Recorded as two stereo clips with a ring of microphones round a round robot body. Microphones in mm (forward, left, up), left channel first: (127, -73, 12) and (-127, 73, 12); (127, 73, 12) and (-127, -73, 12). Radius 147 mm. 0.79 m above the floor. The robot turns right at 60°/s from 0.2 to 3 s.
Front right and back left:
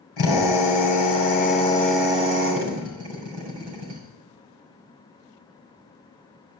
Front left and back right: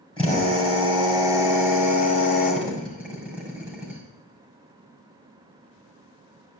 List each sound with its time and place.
0.2 s a drill: 45° right, 6 m; by 4.0 s 125° left, 6 m